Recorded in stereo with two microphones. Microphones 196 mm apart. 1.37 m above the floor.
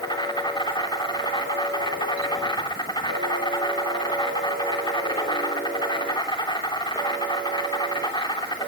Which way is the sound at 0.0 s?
20° left (ahead or behind).